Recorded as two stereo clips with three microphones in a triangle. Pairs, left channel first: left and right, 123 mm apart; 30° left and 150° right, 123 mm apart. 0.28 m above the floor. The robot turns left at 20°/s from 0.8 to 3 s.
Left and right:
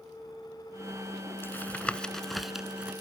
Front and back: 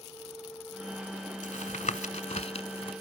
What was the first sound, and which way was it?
Tapping, 20° left.